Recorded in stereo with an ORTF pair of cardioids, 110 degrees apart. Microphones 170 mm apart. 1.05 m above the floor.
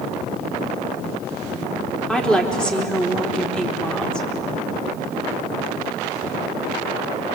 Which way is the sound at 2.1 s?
5° left.